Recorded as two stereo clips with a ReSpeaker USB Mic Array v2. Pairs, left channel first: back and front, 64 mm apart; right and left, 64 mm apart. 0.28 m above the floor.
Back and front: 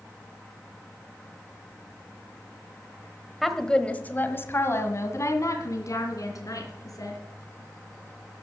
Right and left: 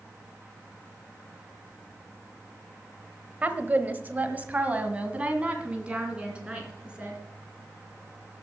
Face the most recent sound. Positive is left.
turn(degrees=165)